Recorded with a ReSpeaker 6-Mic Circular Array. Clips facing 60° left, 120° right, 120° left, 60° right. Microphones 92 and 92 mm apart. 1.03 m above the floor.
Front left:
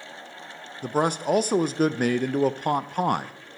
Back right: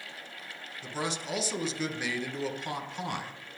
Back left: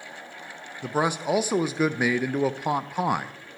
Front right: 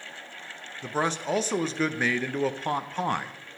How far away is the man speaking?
About 0.6 m.